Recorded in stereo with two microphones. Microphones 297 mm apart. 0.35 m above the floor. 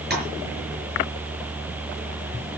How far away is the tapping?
About 5.5 m.